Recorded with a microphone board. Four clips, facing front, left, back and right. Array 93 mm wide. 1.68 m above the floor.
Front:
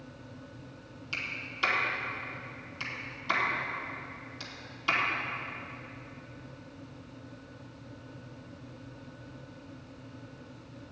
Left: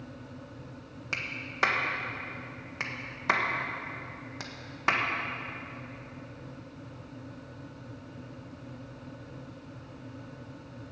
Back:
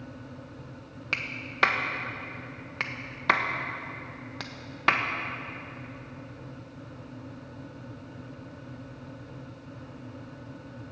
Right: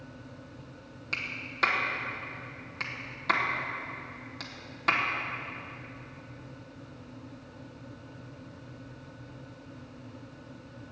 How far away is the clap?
About 1.2 m.